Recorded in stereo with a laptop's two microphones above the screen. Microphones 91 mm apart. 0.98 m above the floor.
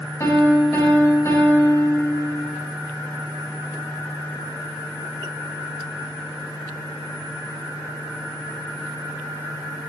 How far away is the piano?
About 1.3 m.